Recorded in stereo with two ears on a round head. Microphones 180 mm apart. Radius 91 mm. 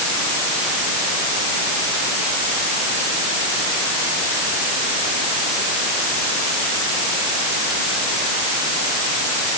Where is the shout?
No shout in this recording.